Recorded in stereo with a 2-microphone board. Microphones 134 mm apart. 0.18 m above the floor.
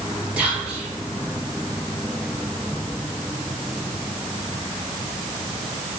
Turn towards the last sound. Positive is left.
turn(degrees=-10)  # may be behind; listen again after turning